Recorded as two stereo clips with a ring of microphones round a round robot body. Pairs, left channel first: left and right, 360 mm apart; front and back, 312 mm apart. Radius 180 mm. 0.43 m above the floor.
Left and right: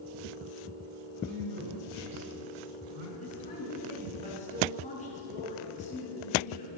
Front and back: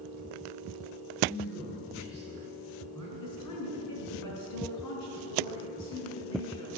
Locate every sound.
1.2 s a man speaking: 80° right, 4.5 m
3.2 s a woman speaking: 20° left, 5.5 m